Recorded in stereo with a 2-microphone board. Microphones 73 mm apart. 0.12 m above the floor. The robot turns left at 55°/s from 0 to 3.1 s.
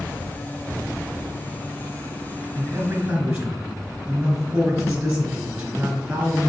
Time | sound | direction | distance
2.5 | a man speaking | 125° right | 2.0 m